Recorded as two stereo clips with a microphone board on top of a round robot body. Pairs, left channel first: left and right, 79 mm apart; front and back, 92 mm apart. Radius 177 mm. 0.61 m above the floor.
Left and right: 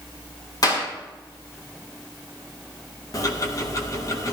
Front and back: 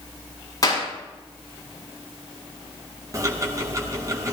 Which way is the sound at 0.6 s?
50° left.